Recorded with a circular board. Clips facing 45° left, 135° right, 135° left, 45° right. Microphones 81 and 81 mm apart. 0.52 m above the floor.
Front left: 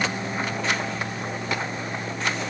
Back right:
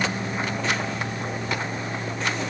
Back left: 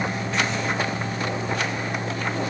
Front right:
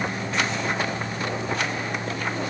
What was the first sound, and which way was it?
Only background noise.